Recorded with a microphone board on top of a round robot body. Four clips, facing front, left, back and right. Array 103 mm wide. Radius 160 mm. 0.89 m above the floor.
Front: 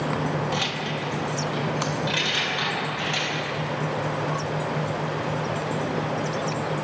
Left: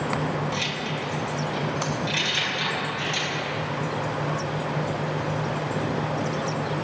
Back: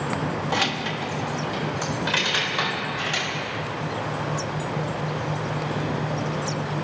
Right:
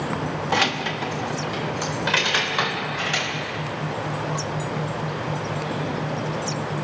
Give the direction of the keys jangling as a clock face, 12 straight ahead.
4 o'clock.